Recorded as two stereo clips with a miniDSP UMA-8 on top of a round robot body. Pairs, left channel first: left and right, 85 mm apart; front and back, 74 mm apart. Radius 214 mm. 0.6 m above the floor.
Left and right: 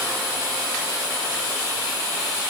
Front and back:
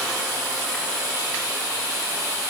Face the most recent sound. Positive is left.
No sound to turn to.